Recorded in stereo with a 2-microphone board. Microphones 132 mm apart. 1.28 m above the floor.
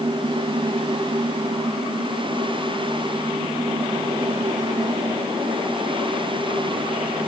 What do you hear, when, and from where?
Only background noise.